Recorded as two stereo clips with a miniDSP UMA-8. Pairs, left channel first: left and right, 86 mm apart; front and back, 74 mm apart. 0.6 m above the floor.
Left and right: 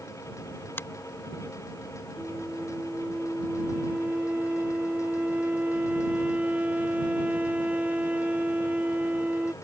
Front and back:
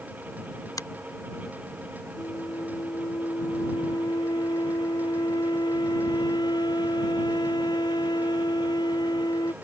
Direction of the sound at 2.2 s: 15° right.